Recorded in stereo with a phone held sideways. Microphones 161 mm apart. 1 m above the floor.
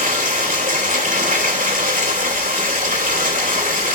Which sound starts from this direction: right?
Running water, at 0.0 s.